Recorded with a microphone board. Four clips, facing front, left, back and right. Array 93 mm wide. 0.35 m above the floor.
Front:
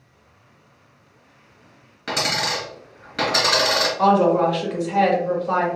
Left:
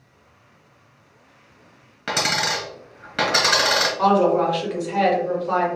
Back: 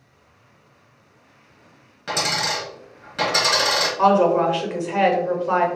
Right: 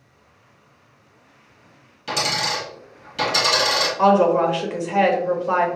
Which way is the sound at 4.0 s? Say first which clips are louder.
Right 2 dB, even; 130° right.